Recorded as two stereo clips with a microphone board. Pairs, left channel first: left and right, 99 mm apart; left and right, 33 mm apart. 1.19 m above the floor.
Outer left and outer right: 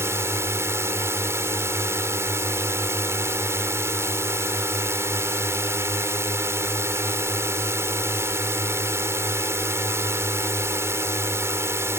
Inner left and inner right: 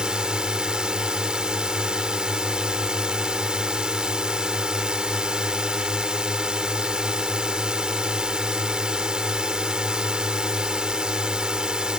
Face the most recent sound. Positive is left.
turn(degrees=-25)  # may be behind; listen again after turning